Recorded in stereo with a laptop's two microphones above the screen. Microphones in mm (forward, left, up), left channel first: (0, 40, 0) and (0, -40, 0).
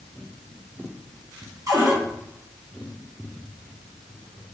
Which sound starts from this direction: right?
A cupboard door, at 1.7 s.